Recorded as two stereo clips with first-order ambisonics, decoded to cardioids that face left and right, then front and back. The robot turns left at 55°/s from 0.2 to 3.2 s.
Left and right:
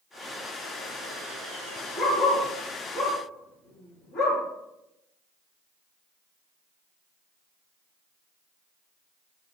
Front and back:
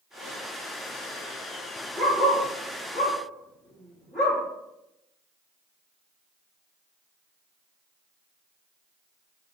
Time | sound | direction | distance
2.0 | a dog barking | straight behind | 1.4 m